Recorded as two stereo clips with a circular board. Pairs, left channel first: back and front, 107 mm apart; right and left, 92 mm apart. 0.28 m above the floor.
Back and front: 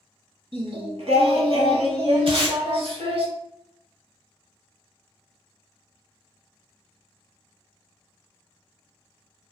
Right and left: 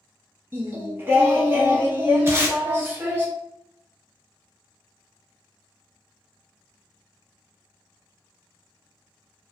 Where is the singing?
25° left, 0.6 m.